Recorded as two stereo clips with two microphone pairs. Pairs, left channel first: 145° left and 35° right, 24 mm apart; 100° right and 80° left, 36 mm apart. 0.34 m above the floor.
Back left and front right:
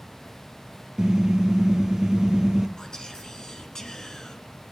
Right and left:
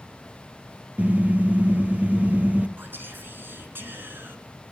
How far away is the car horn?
About 3 m.